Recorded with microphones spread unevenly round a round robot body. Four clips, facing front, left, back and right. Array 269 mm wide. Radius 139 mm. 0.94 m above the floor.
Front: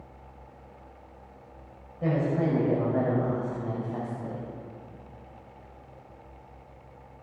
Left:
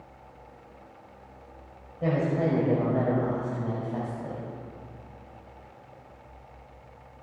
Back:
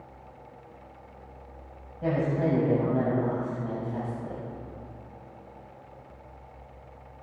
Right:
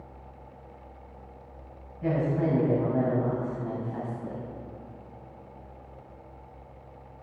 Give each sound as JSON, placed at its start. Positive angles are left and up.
{"t": 2.0, "sound": "a woman speaking", "azimuth_deg": 60, "distance_m": 6.0}